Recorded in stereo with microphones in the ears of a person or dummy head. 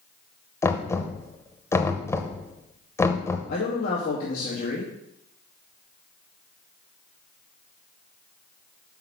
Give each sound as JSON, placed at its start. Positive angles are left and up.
{"t": 0.6, "sound": "knocking", "side_deg": 15, "distance_m": 0.7}
{"t": 3.5, "sound": "a man speaking", "side_deg": 50, "distance_m": 2.0}